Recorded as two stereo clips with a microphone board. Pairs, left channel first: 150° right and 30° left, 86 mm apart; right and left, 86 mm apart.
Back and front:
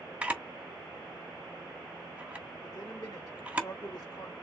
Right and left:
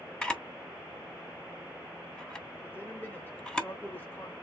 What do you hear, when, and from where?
0.2 s a camera shutter: 25° right, 1.2 m
2.6 s a man speaking: 150° right, 1.7 m